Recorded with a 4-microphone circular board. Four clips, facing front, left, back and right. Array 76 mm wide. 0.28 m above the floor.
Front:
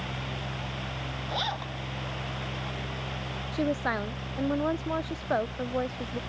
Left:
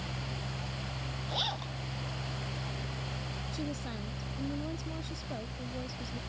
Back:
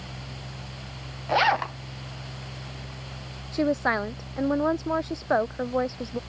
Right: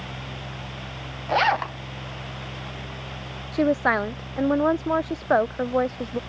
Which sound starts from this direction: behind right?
A zipper, at 1.3 s.